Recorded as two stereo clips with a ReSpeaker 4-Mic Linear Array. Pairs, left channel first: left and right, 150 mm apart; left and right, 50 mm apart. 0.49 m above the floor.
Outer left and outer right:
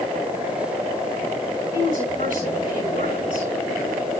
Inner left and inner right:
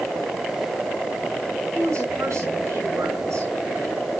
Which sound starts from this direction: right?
A woman speaking, at 1.7 s.